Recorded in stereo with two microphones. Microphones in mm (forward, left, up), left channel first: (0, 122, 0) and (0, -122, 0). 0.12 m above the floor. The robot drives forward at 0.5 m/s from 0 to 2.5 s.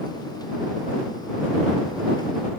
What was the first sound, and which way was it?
Only background noise.